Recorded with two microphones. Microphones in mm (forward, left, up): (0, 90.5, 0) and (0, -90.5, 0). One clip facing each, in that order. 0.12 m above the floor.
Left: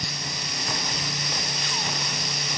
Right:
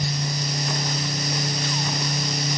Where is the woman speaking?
I don't hear a woman speaking.